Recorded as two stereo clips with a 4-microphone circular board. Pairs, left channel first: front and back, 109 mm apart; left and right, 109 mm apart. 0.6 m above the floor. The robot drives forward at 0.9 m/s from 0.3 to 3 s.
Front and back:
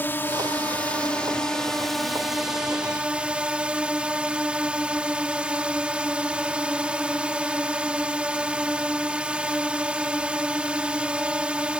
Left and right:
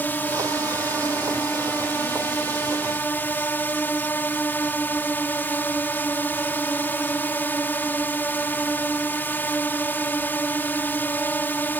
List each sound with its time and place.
0.0 s a drone: 40° left; by 11.8 s 120° left